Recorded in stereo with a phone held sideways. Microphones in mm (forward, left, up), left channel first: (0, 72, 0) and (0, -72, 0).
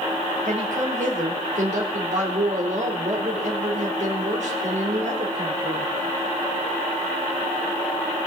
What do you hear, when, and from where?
0.5 s a woman speaking: 55° right (ahead or behind), 4 m